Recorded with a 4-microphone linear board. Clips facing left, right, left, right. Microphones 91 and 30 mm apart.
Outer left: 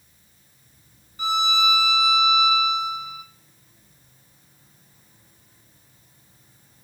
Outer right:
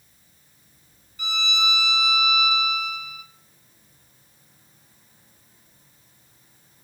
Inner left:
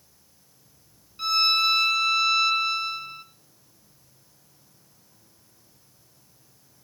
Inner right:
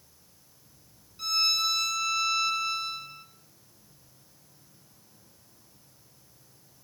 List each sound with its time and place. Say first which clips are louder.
1.2 s a violin: outer left 6 dB, inner left 5 dB; 40° left (ahead or behind), 1.1 m